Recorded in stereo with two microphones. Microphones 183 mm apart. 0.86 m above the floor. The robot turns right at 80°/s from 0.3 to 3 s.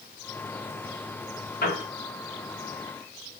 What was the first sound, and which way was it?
A piano, 70° left (ahead or behind).